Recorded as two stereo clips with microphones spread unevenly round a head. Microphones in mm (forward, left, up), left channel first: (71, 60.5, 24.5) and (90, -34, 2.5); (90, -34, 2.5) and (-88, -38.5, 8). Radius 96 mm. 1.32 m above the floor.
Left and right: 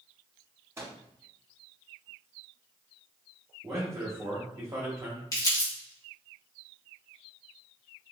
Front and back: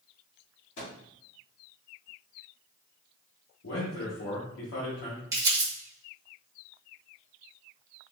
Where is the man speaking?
15° right, 1.0 m.